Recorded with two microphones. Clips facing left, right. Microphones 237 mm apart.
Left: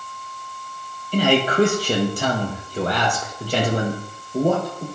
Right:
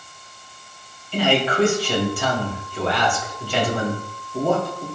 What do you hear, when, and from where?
1.1 s a man speaking: 40° left (ahead or behind), 3.5 m